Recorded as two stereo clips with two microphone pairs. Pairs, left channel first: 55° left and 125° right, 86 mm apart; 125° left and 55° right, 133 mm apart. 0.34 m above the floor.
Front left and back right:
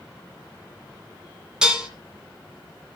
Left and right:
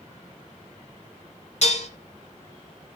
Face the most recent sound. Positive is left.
turn(degrees=155)